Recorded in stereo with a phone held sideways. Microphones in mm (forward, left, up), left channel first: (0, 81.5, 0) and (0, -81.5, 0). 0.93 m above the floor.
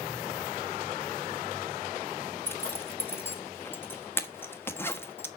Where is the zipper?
15° left (ahead or behind), 1.1 m.